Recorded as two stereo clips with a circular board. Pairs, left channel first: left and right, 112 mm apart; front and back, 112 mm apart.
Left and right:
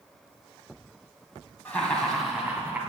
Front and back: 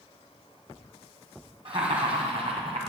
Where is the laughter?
160° left, 1.7 m; by 2.8 s 160° right, 2 m.